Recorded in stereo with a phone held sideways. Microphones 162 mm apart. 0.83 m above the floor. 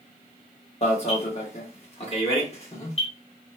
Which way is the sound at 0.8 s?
40° left (ahead or behind).